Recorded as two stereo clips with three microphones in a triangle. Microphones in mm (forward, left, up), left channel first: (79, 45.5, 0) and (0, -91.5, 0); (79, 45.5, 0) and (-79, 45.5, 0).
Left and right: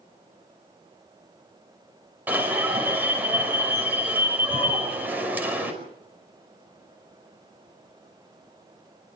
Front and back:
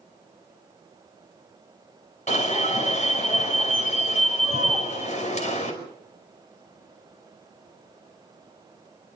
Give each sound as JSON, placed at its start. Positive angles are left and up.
{"t": 2.3, "sound": "an alarm", "azimuth_deg": -40, "distance_m": 5.5}